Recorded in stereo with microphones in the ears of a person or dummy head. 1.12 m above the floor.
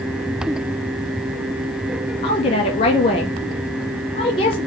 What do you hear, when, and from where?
2.2 s a woman speaking: 25° left (ahead or behind), 0.6 m